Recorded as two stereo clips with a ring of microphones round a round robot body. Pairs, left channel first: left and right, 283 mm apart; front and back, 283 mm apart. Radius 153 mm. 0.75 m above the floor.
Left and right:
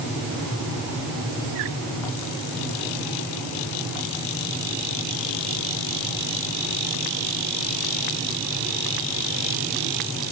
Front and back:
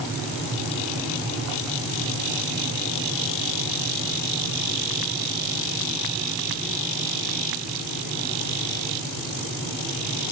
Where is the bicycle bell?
I don't hear a bicycle bell.